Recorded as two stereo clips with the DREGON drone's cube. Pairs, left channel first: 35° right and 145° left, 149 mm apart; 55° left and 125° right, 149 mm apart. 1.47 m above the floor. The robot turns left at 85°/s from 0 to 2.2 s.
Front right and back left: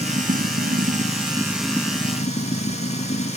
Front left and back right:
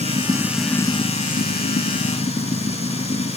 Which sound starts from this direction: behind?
Running water, at 0.0 s.